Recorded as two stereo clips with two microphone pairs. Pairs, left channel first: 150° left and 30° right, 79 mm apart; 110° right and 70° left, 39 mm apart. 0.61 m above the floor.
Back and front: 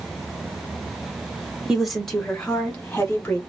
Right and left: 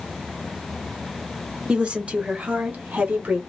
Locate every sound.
1.7 s a woman speaking: 50° left, 0.9 m; by 3.4 s 90° left, 1.8 m